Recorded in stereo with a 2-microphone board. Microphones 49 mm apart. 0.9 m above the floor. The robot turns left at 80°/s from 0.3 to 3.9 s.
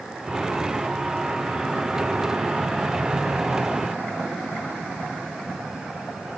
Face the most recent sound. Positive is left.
No sound to turn to.